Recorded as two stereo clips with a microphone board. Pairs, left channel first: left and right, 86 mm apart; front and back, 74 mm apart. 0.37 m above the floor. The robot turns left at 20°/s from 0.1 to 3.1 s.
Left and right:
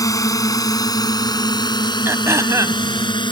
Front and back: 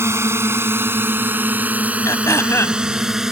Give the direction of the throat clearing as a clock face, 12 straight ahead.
1 o'clock.